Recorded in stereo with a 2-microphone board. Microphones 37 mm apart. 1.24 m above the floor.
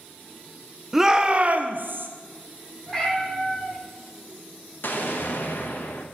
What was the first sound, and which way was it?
A shout, 10° right (ahead or behind).